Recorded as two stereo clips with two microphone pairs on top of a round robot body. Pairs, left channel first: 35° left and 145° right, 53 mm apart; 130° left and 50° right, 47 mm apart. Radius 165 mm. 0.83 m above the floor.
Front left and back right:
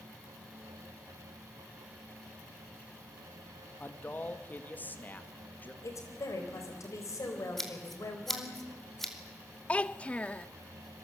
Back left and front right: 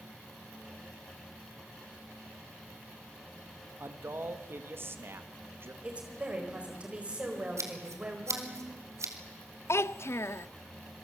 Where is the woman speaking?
15° left, 4 m.